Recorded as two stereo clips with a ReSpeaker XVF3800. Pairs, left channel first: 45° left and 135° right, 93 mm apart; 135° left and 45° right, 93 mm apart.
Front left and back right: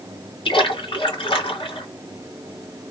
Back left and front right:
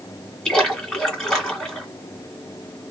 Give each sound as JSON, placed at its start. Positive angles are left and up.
{"t": 0.5, "sound": "a splash", "azimuth_deg": 50, "distance_m": 1.6}